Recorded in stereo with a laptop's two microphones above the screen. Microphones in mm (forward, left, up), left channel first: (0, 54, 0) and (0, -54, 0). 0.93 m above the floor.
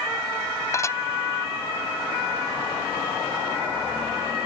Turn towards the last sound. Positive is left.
turn(degrees=30)  # may be behind; listen again after turning